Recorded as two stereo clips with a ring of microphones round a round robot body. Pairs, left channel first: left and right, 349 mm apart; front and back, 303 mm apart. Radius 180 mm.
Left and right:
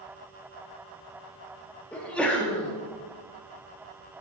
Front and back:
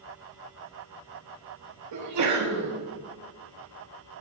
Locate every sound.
1.9 s a sneeze: 175° left, 1.7 m